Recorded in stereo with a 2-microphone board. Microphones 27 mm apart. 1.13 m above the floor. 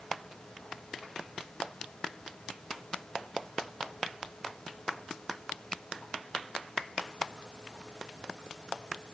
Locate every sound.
Only background noise.